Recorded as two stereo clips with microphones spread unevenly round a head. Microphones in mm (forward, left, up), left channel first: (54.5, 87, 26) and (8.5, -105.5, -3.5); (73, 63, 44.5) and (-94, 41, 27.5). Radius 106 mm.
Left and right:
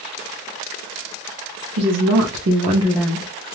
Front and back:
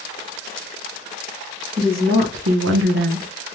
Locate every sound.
1.8 s a woman speaking: 120° right, 1.1 m; by 3.3 s 145° left, 0.7 m